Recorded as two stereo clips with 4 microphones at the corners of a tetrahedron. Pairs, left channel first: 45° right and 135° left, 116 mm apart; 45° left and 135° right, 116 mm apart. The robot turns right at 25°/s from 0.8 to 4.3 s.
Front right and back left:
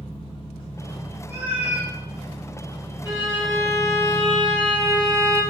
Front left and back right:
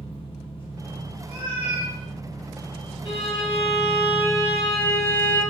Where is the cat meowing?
160° right, 0.8 m; by 1.9 s 145° right, 0.8 m.